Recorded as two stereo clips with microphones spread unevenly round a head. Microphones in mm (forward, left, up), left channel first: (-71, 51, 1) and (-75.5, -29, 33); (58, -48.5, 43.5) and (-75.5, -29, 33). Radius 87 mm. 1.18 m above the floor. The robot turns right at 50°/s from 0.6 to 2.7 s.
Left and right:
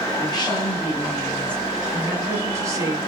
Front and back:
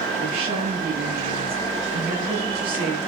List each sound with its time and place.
0.2 s a woman speaking: 115° left, 9 m; by 3.0 s 140° right, 9 m